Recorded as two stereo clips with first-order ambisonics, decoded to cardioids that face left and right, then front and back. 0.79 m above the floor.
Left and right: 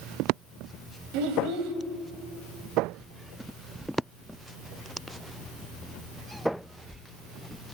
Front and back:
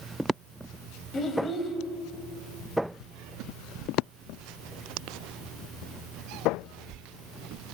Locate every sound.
1.1 s a child speaking: 70° right, 3 m